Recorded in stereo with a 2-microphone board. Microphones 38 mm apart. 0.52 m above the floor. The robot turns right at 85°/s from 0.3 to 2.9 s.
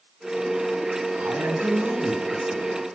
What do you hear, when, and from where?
1.1 s a man speaking: 105° right, 4 m; by 2.7 s 25° left, 4 m